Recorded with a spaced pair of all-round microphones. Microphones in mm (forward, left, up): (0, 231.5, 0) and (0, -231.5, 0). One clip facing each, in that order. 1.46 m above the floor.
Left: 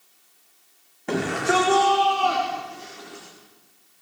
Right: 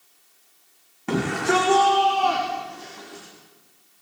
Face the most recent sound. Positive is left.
turn(degrees=-5)  # may be behind; listen again after turning